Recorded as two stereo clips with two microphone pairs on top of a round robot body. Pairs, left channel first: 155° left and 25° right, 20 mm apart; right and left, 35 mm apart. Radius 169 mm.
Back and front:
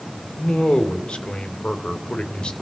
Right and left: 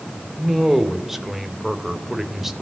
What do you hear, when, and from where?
0.3 s a man speaking: straight behind, 2.5 m